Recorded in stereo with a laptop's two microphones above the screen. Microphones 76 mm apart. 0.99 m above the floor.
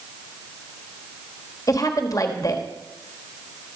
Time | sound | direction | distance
1.7 | a woman speaking | 50° left (ahead or behind) | 1.3 m